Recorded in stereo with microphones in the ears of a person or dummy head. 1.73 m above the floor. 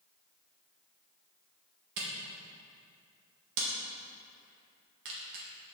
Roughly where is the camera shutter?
Right.